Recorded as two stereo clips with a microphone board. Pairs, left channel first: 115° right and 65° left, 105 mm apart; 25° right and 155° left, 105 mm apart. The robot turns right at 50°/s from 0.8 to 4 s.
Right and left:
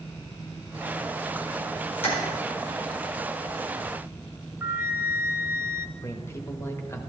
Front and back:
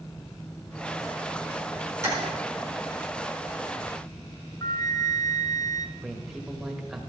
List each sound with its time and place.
2.0 s tapping: 140° right, 4 m; by 2.2 s 135° right, 4 m
4.6 s a flute: 10° left, 0.6 m
6.0 s a man speaking: 120° right, 1.1 m